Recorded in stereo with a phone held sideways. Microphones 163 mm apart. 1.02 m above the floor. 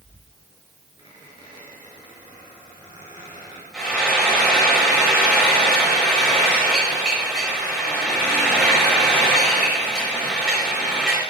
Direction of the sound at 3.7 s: 5° right (ahead or behind).